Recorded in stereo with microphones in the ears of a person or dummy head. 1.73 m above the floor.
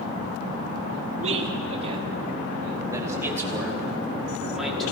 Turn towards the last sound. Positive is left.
turn(degrees=5)  # may be behind; listen again after turning